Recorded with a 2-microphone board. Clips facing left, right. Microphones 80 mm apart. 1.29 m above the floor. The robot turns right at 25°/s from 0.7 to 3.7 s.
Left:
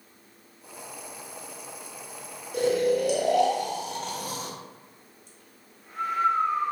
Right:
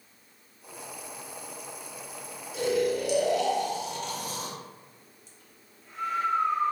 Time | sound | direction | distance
2.5 | snoring | 55° left (ahead or behind) | 0.7 m